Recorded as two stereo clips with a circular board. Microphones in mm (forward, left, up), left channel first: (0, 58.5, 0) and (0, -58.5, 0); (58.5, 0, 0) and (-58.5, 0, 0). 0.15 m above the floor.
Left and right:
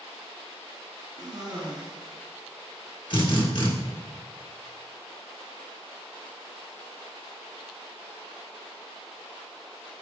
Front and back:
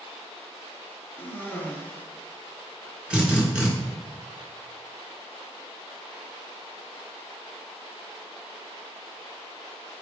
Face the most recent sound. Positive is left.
turn(degrees=100)